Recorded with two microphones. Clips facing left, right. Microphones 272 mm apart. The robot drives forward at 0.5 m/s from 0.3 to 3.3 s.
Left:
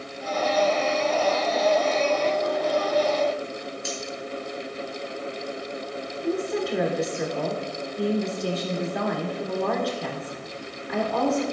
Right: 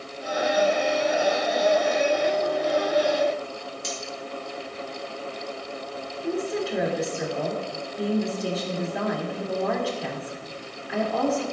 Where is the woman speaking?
5° right (ahead or behind), 2 m.